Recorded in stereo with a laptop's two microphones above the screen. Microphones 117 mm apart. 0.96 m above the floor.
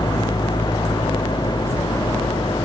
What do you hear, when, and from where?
0.0 s an engine running: 35° left (ahead or behind)